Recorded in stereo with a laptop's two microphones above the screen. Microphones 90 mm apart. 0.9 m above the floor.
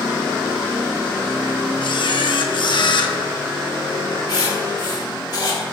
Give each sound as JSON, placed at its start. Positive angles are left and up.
{"t": 1.8, "sound": "a camera shutter", "side_deg": 60, "distance_m": 0.7}
{"t": 4.3, "sound": "writing", "side_deg": 55, "distance_m": 1.4}